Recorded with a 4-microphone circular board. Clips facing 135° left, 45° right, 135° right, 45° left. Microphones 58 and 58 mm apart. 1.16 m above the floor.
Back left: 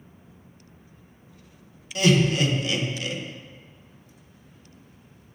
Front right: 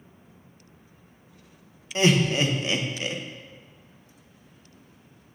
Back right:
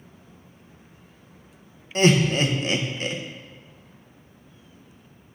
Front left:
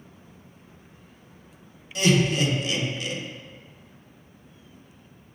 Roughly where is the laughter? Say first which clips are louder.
Back left 1 dB, back right 3 dB; right.